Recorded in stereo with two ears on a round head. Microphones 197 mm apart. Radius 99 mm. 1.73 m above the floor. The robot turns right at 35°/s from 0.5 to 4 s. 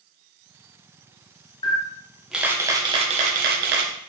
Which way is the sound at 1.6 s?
160° left.